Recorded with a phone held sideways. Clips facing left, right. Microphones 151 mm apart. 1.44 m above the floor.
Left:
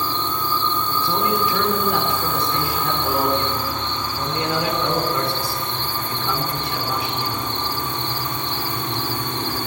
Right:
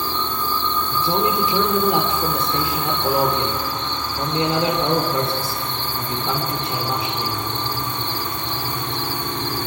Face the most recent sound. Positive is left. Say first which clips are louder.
# right 3 dB
turn(degrees=-25)  # may be behind; listen again after turning